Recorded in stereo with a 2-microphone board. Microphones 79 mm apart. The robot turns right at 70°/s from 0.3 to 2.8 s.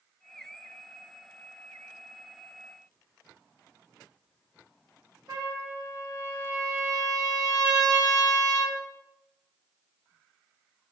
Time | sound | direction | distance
5.3 | a trumpet | 60° right (ahead or behind) | 4 m